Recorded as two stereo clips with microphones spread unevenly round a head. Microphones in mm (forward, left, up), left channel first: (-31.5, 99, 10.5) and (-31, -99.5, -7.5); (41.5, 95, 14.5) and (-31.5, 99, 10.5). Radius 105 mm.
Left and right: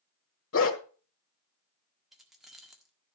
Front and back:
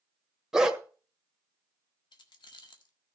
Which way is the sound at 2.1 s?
Straight ahead.